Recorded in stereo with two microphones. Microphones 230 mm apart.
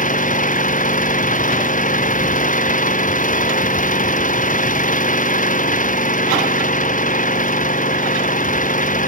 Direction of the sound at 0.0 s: 35° left (ahead or behind).